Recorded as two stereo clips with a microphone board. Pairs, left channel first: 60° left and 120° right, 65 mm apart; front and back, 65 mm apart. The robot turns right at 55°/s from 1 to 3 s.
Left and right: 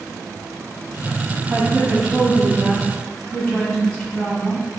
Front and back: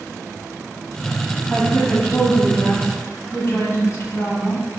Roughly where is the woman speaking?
Ahead right.